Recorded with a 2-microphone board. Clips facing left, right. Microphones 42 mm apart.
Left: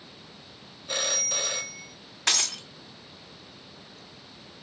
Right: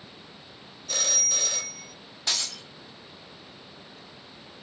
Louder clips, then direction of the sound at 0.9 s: Left 1 dB; 20° left (ahead or behind).